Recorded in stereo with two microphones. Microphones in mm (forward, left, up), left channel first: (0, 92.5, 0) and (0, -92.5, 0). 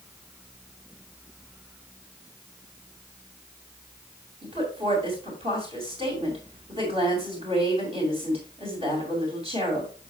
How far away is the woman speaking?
About 2.5 m.